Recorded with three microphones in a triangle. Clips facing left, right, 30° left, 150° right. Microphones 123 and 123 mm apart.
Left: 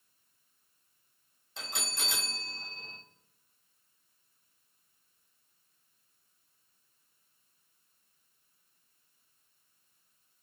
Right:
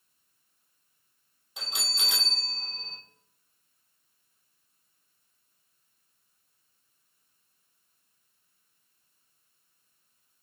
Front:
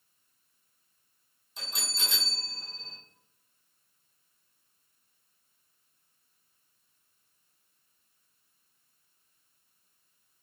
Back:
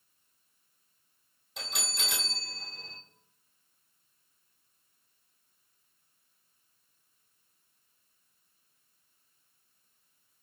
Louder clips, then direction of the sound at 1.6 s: Even, back 2 dB; 165° right.